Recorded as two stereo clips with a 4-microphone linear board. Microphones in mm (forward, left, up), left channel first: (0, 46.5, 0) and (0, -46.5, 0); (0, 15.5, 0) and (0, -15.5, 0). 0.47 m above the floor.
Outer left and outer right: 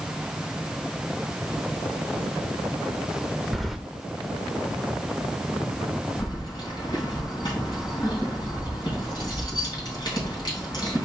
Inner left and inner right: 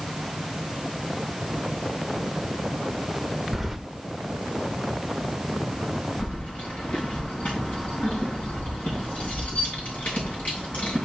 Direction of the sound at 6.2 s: 50° left (ahead or behind).